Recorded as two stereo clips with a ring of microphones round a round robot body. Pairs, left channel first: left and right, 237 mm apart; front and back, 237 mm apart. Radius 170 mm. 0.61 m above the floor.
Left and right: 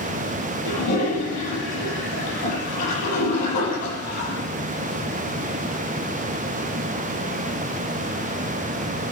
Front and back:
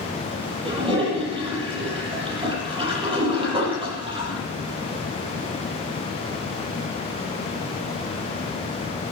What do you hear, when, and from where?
0.7 s a toilet flushing: 110° left, 9 m